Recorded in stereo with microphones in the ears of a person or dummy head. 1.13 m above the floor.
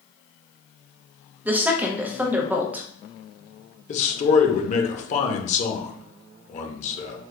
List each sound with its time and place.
1.4 s a woman speaking: 10° right (ahead or behind), 0.5 m
3.9 s a man speaking: 40° left (ahead or behind), 0.7 m